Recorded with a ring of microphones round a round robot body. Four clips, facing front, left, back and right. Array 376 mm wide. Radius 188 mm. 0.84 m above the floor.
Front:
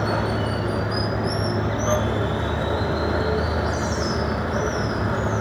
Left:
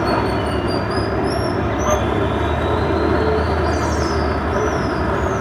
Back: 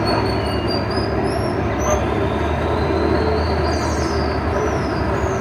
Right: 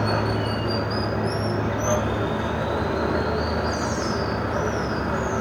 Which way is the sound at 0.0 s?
130° left.